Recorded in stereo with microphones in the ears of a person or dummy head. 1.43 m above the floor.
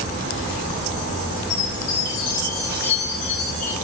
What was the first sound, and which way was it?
A chime, 40° left (ahead or behind).